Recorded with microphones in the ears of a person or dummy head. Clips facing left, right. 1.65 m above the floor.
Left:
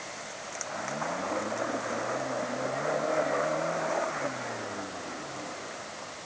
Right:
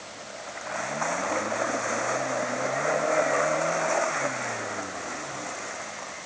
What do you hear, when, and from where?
Only background noise.